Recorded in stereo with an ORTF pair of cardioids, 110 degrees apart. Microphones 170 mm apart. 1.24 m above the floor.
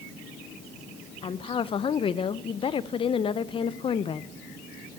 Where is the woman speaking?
30° left, 0.5 m.